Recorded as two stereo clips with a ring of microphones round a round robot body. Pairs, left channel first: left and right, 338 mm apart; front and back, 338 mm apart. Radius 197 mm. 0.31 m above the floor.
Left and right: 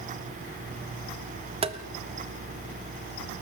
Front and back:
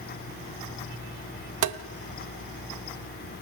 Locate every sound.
1.6 s tapping: 160° right, 1.0 m